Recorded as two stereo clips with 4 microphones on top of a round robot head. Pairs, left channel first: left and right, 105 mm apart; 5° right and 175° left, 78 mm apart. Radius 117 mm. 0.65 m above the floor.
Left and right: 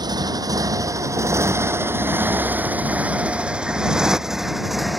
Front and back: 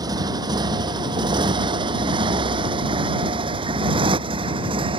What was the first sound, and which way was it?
A motorcycle, 140° right.